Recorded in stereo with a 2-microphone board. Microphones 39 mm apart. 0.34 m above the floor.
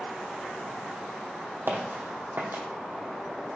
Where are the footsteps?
65° right (ahead or behind), 0.9 m.